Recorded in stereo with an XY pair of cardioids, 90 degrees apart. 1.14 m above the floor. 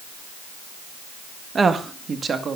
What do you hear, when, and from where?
1.6 s a woman speaking: 40° right, 1.7 m; by 2.6 s 50° right, 2.5 m